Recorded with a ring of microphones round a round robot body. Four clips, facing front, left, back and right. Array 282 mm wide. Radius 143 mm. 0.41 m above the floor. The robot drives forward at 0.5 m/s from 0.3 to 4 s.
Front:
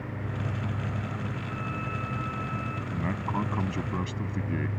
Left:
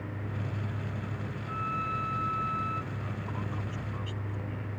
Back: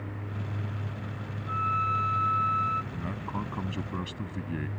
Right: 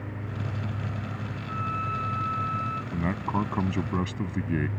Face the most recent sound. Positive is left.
turn(degrees=-80)